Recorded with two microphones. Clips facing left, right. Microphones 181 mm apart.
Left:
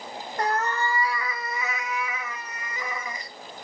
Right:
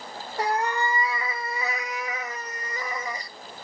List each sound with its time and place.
0.4 s a cat meowing: 10° right (ahead or behind), 1.0 m; by 3.3 s 35° right (ahead or behind), 1.3 m